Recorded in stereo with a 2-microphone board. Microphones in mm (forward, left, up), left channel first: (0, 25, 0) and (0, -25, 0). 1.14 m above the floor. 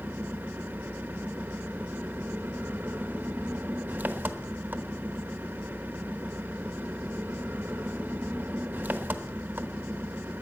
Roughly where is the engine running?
Right.